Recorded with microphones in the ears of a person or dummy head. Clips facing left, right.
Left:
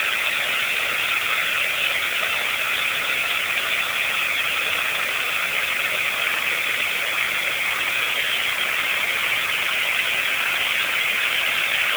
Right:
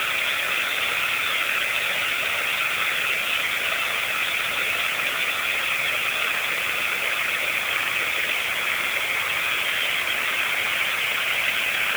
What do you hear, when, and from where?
Only background noise.